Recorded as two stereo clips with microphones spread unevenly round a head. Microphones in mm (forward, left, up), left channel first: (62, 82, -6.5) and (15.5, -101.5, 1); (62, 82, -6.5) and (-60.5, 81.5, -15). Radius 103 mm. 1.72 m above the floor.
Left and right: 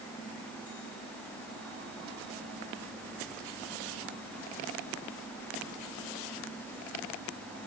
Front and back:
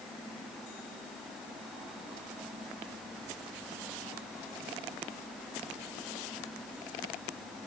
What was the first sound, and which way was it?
Only background noise.